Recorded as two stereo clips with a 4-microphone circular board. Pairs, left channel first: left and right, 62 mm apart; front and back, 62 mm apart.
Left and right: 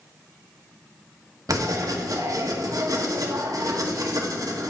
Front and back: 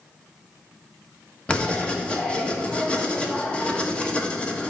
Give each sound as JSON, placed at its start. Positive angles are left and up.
{"t": 1.5, "sound": "writing", "azimuth_deg": -75, "distance_m": 1.1}